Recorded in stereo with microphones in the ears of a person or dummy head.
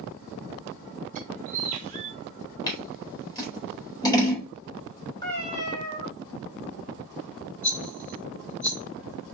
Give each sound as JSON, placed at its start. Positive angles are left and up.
{"t": 1.1, "sound": "a bird", "side_deg": -40, "distance_m": 0.8}
{"t": 2.7, "sound": "scissors", "side_deg": 15, "distance_m": 2.0}
{"t": 5.2, "sound": "a cat meowing", "side_deg": 15, "distance_m": 2.0}
{"t": 7.6, "sound": "a rattle", "side_deg": 10, "distance_m": 2.0}